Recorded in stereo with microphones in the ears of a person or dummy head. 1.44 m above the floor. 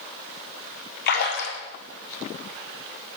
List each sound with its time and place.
1.1 s a splash: 60° left (ahead or behind), 1.1 m